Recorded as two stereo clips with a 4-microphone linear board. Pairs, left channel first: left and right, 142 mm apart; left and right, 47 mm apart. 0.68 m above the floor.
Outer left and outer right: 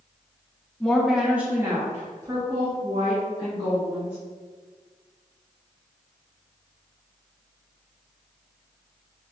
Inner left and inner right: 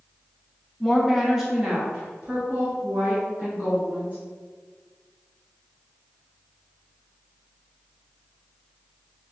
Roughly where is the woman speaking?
Centre.